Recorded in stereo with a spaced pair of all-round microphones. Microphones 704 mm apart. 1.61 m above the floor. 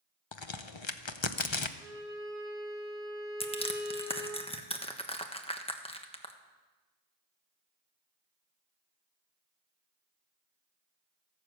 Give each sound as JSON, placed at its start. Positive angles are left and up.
{"t": 0.3, "sound": "a crack", "side_deg": 40, "distance_m": 0.8}
{"t": 1.8, "sound": "a violin", "side_deg": -5, "distance_m": 4.5}
{"t": 3.4, "sound": "crushing", "side_deg": 10, "distance_m": 1.3}